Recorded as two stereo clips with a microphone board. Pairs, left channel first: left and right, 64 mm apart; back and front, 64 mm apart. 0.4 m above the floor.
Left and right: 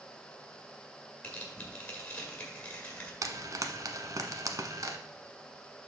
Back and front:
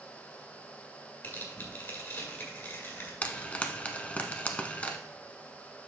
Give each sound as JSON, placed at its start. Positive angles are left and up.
{"t": 1.2, "sound": "tearing paper", "azimuth_deg": 150, "distance_m": 1.9}
{"t": 3.2, "sound": "frying", "azimuth_deg": -115, "distance_m": 0.8}